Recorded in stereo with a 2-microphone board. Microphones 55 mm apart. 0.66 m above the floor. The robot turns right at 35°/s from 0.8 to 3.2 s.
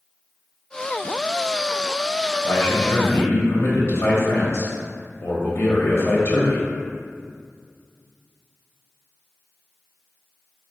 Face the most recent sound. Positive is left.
turn(degrees=45)  # may be behind; listen again after turning